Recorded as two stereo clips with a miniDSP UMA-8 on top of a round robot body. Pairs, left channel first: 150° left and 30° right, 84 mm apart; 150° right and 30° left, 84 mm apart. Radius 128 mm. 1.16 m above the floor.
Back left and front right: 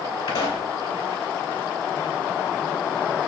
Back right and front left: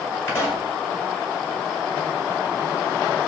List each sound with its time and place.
0.3 s a pop: 155° left, 2.5 m